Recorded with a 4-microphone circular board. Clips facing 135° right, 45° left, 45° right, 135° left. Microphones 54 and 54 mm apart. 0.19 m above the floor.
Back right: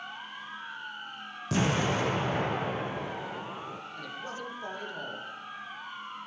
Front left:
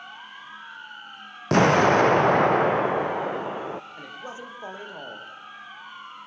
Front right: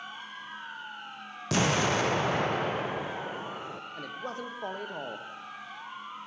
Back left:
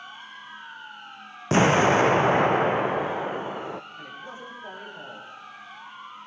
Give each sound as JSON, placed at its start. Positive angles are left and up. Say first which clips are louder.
{"t": 1.5, "sound": "an explosion", "louder": "front left 11 dB, back left 8 dB", "azimuth_deg": 75, "distance_m": 1.5}
{"t": 4.0, "sound": "a man speaking", "louder": "front left 1 dB, front right 2 dB", "azimuth_deg": -25, "distance_m": 7.0}